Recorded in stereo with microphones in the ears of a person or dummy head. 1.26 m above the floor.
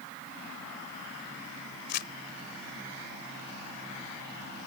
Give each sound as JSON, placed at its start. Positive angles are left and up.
{"t": 1.9, "sound": "crumpling", "side_deg": 55}